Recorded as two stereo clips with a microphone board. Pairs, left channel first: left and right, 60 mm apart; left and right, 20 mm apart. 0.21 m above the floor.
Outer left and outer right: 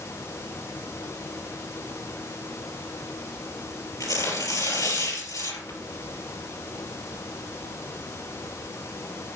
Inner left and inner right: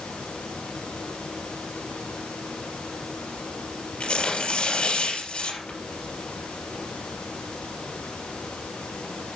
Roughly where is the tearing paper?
Left.